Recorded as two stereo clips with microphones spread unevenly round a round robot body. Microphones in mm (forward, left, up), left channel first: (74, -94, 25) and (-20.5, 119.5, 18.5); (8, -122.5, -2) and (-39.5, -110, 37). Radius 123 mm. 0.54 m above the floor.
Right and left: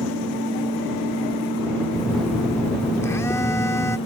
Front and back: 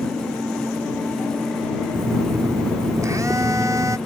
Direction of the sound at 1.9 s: 145° right.